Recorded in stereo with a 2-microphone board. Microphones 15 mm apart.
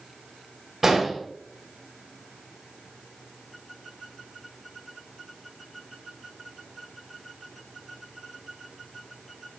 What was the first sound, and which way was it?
An explosion, 25° right (ahead or behind).